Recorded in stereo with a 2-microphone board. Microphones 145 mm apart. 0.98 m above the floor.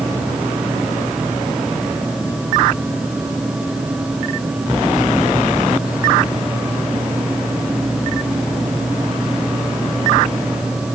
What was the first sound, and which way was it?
Only background noise.